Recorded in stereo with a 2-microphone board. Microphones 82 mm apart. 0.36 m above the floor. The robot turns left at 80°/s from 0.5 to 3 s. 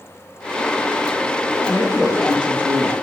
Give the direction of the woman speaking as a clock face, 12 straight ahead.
11 o'clock.